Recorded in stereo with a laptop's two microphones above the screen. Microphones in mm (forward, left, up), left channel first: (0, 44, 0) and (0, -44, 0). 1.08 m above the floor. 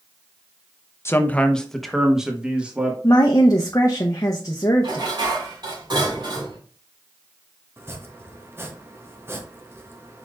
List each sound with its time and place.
1.1 s a man speaking: 30° left (ahead or behind), 0.7 m; by 2.9 s 15° right (ahead or behind), 1.7 m
3.0 s a woman speaking: 40° left (ahead or behind), 0.7 m
4.8 s dishes clattering: 65° right (ahead or behind), 2.5 m
7.8 s chopping: 30° right (ahead or behind), 0.7 m